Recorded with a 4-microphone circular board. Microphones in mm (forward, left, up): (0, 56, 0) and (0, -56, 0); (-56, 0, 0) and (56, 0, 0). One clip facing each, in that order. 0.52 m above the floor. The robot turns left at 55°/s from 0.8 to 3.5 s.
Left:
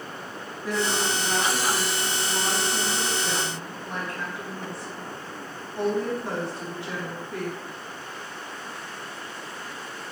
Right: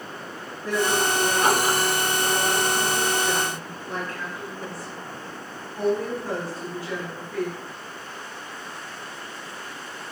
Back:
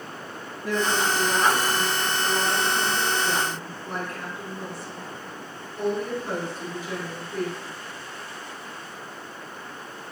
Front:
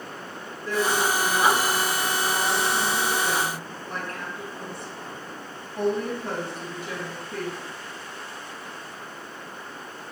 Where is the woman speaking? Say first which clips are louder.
Right 3 dB, even; 170° left, 4.5 m; by 7.5 s 20° left, 4.5 m.